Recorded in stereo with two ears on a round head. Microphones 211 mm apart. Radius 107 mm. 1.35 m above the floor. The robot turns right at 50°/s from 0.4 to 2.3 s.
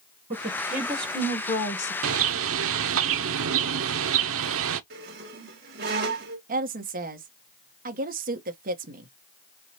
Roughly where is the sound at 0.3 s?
Ahead right.